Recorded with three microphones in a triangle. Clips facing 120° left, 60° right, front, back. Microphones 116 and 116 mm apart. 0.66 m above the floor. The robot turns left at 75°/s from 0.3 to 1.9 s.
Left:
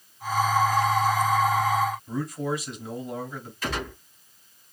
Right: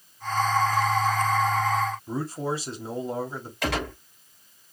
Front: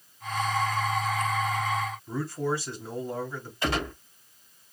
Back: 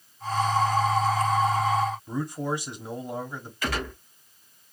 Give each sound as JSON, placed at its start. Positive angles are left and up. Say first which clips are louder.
{"t": 2.1, "sound": "a man speaking", "louder": "even, even", "azimuth_deg": -110, "distance_m": 1.6}
{"t": 3.6, "sound": "a gunshot", "louder": "right 3 dB, front 2 dB", "azimuth_deg": -60, "distance_m": 2.5}